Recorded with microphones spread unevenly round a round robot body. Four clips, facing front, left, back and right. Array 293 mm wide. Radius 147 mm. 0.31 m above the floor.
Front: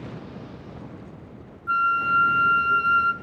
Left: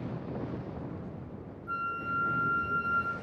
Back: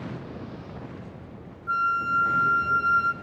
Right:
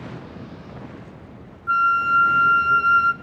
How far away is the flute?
About 0.7 m.